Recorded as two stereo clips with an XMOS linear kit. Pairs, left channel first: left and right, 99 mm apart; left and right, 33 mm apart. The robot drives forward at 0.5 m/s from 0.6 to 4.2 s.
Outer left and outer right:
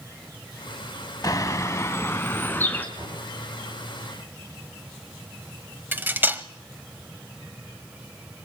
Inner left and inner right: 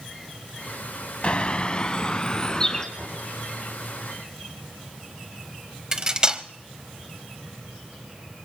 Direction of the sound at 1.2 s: 40° left (ahead or behind).